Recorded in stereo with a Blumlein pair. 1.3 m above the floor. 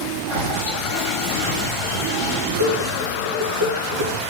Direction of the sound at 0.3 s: 50° left.